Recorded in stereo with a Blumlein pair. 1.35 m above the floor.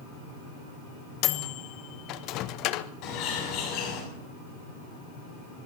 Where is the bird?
40° left, 6.5 m.